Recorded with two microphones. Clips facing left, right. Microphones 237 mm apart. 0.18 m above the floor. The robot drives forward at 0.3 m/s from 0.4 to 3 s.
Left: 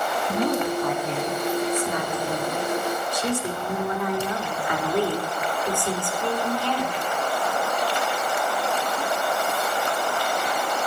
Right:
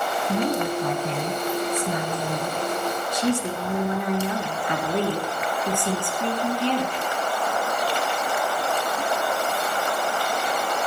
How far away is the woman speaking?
About 1.8 m.